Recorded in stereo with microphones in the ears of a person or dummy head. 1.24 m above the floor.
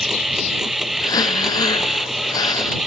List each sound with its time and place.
0.0 s a machine running: 5° right (ahead or behind)
1.0 s breathing: 15° left (ahead or behind)